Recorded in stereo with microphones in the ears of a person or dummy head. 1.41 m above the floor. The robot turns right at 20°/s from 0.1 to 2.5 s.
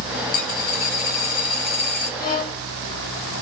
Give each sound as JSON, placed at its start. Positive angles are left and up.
{"t": 0.3, "sound": "a dropped coin", "azimuth_deg": 65, "distance_m": 1.4}
{"t": 2.2, "sound": "a violin", "side_deg": 50, "distance_m": 1.6}